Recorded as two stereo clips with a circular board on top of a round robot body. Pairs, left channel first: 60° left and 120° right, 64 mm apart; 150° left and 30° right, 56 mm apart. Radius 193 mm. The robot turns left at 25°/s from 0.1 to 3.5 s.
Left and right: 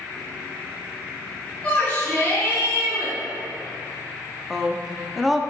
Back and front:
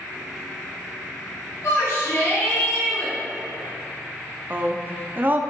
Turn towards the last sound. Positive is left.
turn(degrees=-35)